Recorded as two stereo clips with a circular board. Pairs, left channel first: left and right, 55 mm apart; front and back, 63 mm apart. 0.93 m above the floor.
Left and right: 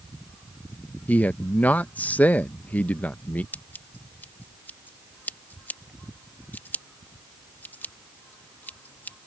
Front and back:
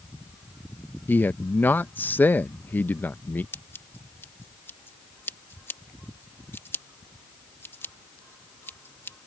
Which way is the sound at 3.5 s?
45° left.